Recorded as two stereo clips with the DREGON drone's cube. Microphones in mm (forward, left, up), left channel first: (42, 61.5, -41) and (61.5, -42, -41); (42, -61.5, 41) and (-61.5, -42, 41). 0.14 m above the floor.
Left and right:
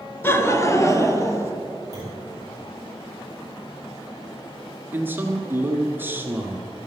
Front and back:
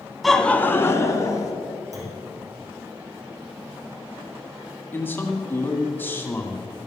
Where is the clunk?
135° right, 4.5 m.